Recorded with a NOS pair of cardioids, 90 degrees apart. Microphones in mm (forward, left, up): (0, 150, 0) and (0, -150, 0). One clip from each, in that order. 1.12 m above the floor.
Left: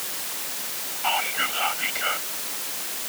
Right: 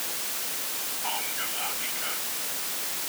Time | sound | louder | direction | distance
1.0 | whispering | left 10 dB | 65° left | ?